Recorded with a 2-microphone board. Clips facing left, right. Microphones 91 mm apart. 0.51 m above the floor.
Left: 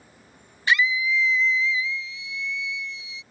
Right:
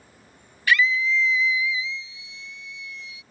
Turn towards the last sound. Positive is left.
turn(degrees=-55)  # may be behind; listen again after turning